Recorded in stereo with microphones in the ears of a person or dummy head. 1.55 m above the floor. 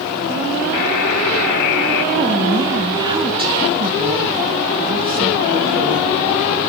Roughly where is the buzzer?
Left.